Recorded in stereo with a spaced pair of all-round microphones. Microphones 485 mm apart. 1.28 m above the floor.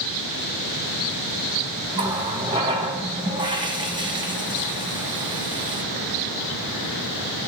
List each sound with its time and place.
1.9 s a running tap: 10° right (ahead or behind), 0.8 m